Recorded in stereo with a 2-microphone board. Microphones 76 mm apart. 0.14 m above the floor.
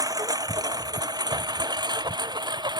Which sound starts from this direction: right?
A lawn mower, at 0.0 s.